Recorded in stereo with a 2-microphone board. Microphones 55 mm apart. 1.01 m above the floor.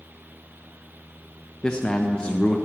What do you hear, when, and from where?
1.6 s a man speaking: 15° left (ahead or behind), 0.5 m